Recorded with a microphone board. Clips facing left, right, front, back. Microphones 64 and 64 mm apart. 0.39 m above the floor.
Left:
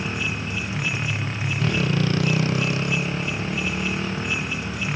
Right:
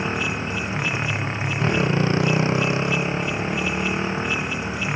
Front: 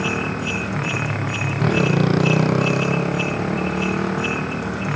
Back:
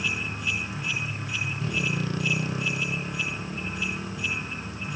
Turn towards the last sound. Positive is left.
turn(degrees=-20)